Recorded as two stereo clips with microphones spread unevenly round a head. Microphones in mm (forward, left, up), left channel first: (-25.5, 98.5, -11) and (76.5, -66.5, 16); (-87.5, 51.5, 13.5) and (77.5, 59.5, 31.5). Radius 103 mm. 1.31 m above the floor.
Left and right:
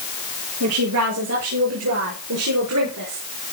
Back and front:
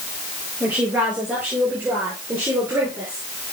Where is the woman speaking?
80° right, 8 m; by 3.2 s 75° right, 5 m.